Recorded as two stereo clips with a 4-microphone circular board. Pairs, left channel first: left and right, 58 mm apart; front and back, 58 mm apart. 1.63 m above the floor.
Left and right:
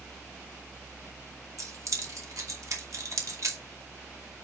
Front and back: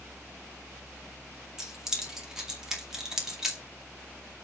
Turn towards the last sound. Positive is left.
turn(degrees=-100)